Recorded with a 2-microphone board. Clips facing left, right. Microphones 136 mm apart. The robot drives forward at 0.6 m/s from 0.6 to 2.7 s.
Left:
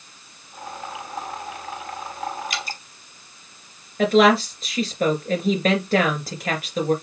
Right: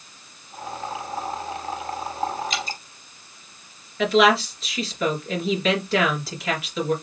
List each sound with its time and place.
2.5 s dripping: 25° right (ahead or behind), 1.4 m
4.0 s a woman speaking: 50° left (ahead or behind), 2.5 m